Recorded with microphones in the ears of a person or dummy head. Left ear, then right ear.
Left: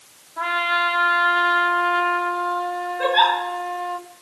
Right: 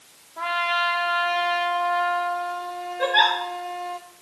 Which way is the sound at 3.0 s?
15° right (ahead or behind).